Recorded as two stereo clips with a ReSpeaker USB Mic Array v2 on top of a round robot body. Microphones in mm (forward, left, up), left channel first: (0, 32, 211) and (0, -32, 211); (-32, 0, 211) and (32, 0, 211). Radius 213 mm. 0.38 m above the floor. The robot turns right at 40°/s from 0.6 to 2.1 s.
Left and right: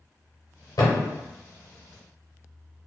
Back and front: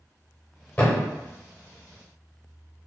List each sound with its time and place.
0.8 s a thud: 115° left, 0.6 m; by 1.1 s 125° left, 0.6 m